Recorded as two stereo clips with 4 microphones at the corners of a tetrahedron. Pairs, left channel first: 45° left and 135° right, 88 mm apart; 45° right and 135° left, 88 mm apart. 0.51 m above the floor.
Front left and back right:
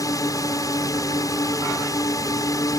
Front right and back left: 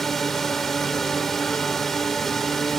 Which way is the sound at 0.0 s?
40° left.